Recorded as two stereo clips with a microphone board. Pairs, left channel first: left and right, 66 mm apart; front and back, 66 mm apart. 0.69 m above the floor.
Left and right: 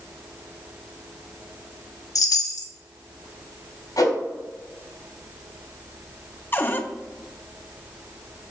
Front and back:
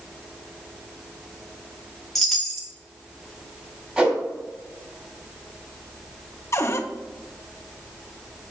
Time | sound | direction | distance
2.1 | a chime | 90° left | 1.1 m
4.0 | a whoosh | 110° left | 3.5 m
6.5 | a cupboard door | 35° left | 0.7 m